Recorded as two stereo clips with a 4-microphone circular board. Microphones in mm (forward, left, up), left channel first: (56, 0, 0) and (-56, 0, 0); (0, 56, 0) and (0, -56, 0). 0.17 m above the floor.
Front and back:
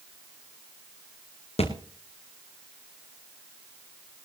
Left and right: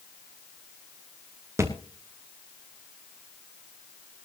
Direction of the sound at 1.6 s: 25° right.